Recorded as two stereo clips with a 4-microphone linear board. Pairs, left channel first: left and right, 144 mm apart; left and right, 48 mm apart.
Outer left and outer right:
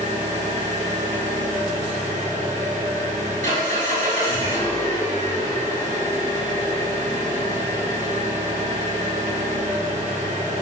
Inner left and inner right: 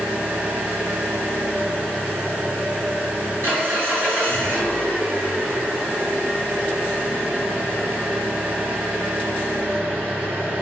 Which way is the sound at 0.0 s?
60° right (ahead or behind).